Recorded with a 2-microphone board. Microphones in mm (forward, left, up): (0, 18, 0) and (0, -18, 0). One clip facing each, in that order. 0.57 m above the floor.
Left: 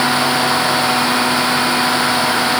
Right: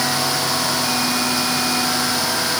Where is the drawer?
No drawer in this recording.